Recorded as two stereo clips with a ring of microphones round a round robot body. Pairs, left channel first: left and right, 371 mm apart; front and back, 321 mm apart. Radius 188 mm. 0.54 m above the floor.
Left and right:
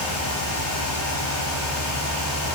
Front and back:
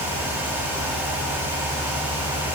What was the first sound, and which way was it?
Only background noise.